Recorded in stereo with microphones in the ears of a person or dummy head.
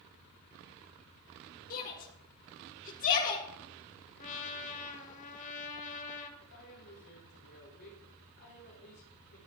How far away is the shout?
About 1.3 m.